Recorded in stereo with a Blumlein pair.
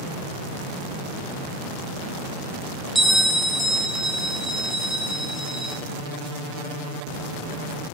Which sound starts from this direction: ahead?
A bell, at 3.0 s.